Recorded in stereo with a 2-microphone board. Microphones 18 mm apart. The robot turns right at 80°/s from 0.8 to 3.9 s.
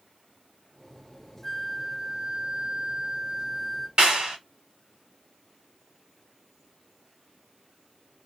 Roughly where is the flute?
Behind.